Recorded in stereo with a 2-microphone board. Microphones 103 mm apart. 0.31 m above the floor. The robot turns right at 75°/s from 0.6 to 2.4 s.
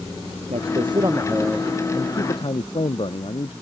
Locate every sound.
0.5 s a man speaking: 75° right; by 3.5 s 60° left